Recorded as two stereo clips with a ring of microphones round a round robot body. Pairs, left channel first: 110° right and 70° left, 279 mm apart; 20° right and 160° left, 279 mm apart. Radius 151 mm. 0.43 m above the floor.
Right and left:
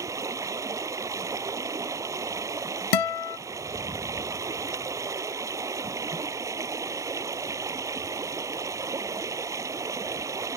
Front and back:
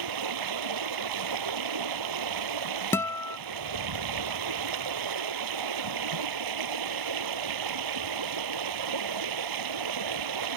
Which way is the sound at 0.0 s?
145° left.